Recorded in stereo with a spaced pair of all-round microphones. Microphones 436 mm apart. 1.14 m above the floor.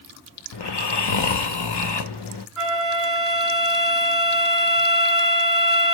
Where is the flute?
30° right (ahead or behind), 2.5 m.